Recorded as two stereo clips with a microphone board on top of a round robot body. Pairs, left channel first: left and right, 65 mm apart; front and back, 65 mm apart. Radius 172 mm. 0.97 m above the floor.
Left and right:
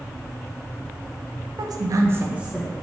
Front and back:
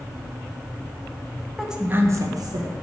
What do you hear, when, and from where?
1.6 s a woman speaking: 90° right, 0.7 m; by 2.7 s 175° right, 0.9 m